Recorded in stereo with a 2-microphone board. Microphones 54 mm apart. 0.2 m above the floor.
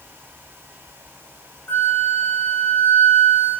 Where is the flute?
30° left (ahead or behind), 1.4 m.